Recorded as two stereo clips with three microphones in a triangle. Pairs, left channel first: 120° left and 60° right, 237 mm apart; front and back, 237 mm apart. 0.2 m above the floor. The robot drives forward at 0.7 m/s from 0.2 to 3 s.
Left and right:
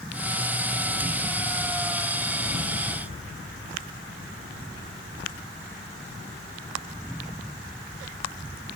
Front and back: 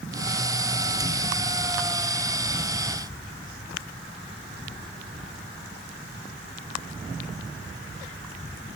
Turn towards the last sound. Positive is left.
No sound to turn to.